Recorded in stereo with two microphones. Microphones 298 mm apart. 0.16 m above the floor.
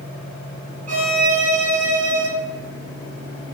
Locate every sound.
0.9 s a violin: 65° right (ahead or behind), 0.8 m